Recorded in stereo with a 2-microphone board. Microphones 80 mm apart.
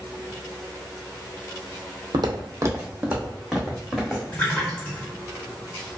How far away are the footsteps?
About 0.6 m.